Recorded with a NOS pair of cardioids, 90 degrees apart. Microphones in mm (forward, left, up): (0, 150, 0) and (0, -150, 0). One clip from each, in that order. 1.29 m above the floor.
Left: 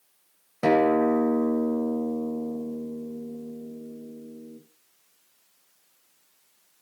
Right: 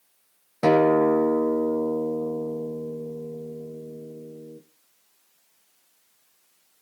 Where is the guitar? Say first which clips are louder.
Right 2 dB; 15° right, 3.5 m.